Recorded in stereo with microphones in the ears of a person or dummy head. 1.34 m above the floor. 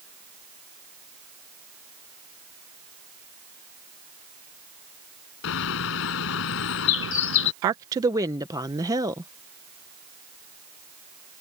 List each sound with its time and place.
5.4 s a bird: 70° left (ahead or behind)
7.6 s a woman speaking: 15° right (ahead or behind)